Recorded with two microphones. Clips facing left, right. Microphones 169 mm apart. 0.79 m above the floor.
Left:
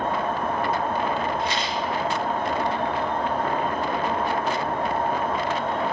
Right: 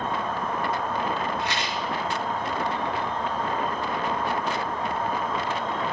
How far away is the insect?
About 1.6 m.